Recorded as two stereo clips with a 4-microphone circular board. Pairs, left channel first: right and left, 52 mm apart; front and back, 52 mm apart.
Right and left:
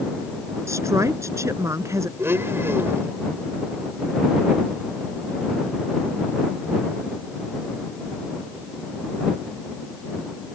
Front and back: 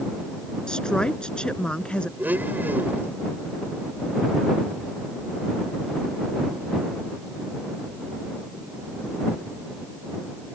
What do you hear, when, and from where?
0.7 s a woman speaking: 75° left; by 2.1 s 70° left
2.2 s a blender: 130° left